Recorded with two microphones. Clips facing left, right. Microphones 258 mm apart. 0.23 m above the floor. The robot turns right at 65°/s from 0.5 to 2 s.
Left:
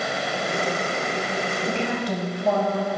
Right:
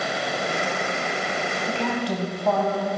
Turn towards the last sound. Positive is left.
turn(degrees=20)  # may be behind; listen again after turning